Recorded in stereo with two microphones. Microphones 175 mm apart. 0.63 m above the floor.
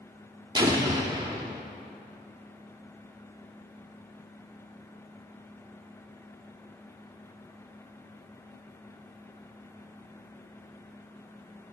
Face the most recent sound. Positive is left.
turn(degrees=-25)  # may be behind; listen again after turning